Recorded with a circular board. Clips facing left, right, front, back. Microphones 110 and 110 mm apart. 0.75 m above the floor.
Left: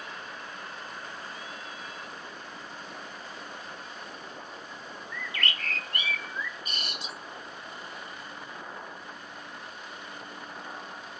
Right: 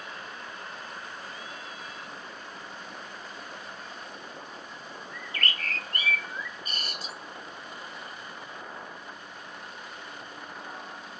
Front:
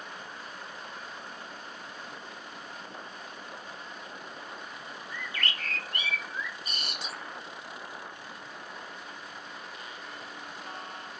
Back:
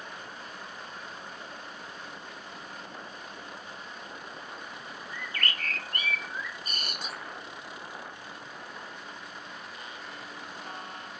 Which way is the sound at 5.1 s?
140° right.